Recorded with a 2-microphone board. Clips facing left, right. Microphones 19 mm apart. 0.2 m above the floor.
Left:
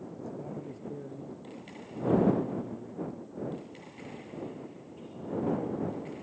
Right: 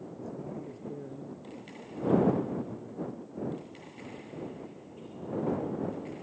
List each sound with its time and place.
0.2 s a man speaking: 5° left (ahead or behind)